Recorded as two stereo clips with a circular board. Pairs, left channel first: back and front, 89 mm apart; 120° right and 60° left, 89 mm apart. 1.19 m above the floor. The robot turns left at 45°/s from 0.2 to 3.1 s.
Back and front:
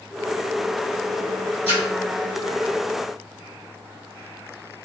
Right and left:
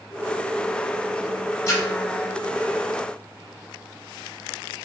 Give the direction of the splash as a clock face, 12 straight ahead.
6 o'clock.